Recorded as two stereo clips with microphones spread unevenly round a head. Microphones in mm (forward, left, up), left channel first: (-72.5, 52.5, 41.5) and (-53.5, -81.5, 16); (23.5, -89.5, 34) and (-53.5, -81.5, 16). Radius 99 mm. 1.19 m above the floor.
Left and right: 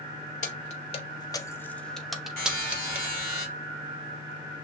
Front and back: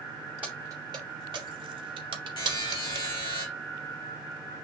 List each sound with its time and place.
0.4 s keys jangling: 85° left, 0.7 m; by 3.1 s 160° right, 1.3 m
2.4 s a buzzer: 15° left, 2.5 m